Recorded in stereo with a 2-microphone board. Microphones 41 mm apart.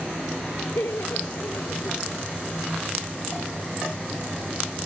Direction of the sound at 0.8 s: 85° left.